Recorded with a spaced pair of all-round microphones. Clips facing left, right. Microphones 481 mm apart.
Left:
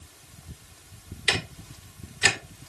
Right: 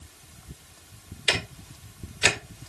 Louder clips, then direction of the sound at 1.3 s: Right 1 dB; 20° left (ahead or behind).